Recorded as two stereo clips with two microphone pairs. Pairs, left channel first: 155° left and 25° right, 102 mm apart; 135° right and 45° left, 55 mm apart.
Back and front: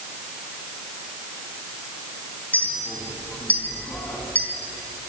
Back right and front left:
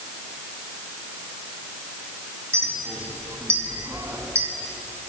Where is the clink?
80° left, 3.5 m.